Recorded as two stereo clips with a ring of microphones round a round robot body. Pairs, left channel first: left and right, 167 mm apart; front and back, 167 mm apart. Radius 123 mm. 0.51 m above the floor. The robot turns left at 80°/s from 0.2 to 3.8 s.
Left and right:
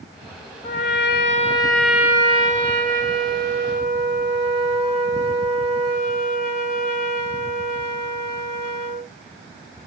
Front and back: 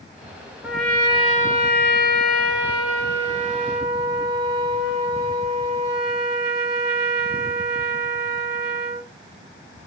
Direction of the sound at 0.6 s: 105° left.